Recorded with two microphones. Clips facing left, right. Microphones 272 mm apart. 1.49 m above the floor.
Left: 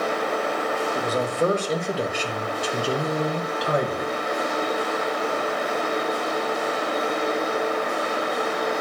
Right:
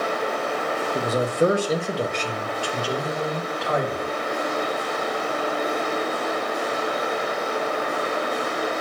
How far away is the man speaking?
About 0.9 m.